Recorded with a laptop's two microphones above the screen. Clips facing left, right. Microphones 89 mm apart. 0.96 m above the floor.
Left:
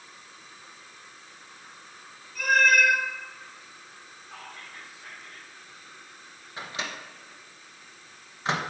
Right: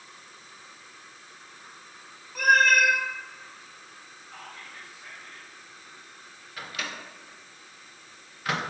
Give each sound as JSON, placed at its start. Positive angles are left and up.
{"t": 2.4, "sound": "a cat meowing", "side_deg": -75, "distance_m": 1.4}
{"t": 4.3, "sound": "whispering", "side_deg": 65, "distance_m": 2.5}
{"t": 6.6, "sound": "a microwave", "side_deg": 25, "distance_m": 0.7}